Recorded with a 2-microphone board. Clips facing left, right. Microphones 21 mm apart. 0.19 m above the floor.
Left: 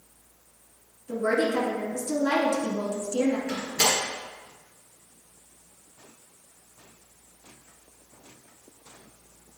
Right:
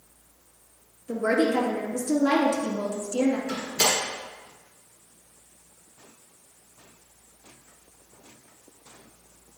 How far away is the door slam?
About 2.5 m.